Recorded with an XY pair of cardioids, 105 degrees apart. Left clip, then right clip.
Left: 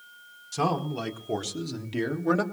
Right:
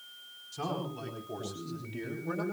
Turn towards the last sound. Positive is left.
turn(degrees=75)